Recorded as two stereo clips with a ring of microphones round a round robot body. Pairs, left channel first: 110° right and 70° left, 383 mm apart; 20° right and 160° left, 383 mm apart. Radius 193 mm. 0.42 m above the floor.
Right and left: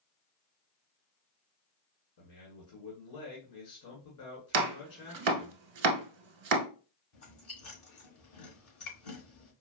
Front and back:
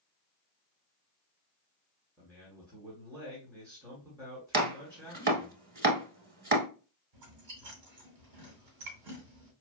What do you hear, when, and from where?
2.2 s a man speaking: 125° right, 1.6 m
4.5 s chopping: 90° left, 0.9 m
7.1 s chewing: 165° right, 1.8 m